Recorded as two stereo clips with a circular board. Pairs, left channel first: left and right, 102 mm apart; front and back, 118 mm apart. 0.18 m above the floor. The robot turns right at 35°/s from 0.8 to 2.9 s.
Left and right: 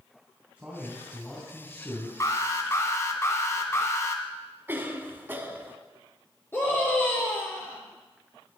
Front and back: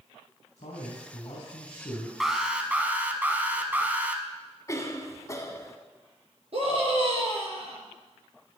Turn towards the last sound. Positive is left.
turn(degrees=155)